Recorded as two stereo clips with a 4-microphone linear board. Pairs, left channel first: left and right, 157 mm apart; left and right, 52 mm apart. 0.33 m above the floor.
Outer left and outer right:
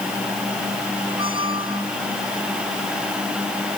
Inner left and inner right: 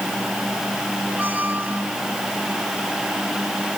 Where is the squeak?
30° right (ahead or behind).